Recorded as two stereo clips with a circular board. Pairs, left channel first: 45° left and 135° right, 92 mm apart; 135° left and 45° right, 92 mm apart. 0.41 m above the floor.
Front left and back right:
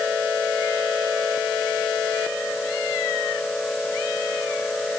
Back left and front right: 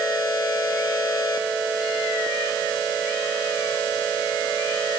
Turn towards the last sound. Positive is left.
No sound to turn to.